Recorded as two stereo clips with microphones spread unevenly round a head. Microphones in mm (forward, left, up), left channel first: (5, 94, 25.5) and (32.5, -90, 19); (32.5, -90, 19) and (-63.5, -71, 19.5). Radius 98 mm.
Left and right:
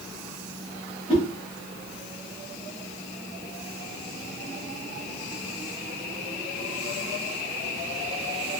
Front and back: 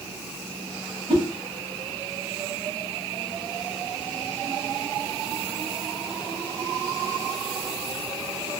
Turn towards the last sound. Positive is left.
turn(degrees=160)